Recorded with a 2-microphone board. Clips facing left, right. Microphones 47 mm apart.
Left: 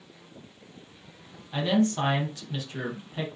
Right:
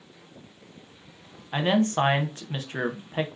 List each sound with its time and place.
1.5 s a man speaking: 40° right (ahead or behind), 0.7 m